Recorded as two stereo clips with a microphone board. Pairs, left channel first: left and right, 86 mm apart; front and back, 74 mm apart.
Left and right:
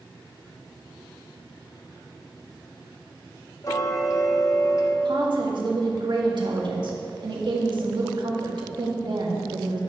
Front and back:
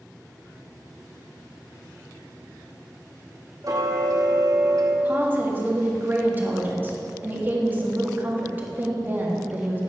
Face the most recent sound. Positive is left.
turn(degrees=-115)